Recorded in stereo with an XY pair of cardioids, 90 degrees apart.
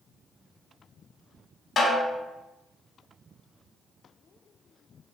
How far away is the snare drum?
About 1.0 m.